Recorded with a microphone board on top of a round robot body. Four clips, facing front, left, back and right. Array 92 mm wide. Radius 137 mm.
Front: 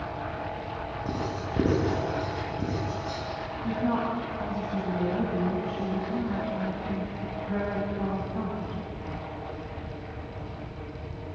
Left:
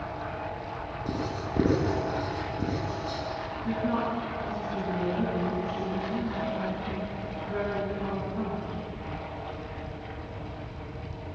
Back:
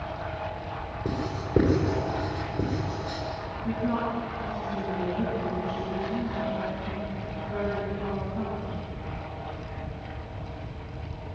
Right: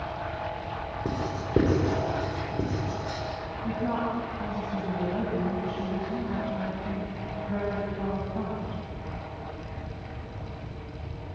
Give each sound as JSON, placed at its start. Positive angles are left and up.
{"t": 1.1, "sound": "writing", "azimuth_deg": -130, "distance_m": 8.0}
{"t": 3.6, "sound": "a woman speaking", "azimuth_deg": -40, "distance_m": 6.5}